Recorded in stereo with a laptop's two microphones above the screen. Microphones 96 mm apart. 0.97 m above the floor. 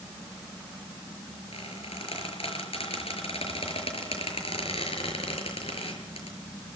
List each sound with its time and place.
1.5 s a squeak: 85° left, 6 m